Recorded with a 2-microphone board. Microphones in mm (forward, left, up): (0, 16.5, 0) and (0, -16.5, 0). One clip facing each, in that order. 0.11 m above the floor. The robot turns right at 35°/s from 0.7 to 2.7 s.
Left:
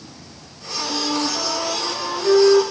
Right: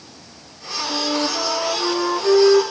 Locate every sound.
0.9 s a flute: 150° right, 4 m; by 2.6 s 90° right, 4 m